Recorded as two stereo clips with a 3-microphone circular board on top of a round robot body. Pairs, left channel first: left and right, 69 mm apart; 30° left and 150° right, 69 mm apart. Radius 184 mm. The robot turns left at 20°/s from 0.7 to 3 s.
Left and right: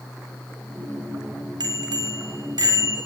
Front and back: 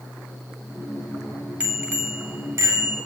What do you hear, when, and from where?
1.6 s a bicycle bell: 80° right, 3.5 m; by 3.0 s 110° right, 3.5 m